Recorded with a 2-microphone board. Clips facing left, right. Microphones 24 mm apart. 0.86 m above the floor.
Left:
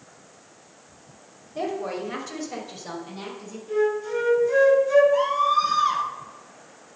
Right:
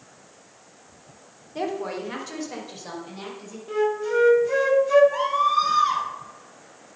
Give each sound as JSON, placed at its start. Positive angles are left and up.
{"t": 1.6, "sound": "a woman speaking", "side_deg": -40, "distance_m": 2.0}
{"t": 3.7, "sound": "a flute", "side_deg": -35, "distance_m": 1.4}
{"t": 5.1, "sound": "a scream", "side_deg": -25, "distance_m": 3.5}